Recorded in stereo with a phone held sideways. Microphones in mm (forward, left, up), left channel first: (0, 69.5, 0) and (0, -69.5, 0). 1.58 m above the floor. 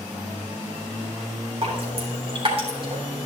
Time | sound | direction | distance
1.6 | dripping | 45° right (ahead or behind) | 3 m